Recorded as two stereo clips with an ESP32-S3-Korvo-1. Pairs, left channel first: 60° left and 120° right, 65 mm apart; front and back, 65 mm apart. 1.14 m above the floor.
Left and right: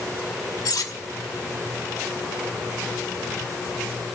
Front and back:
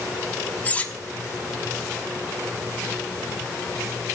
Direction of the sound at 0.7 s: 65° left.